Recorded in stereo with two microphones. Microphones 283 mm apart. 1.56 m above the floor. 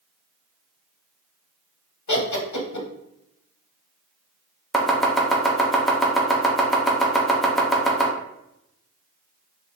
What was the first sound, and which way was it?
Laughter, 85° left.